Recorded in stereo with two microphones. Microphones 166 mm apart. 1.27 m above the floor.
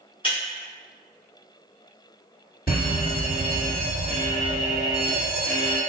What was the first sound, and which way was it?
Breaking glass, 30° left (ahead or behind).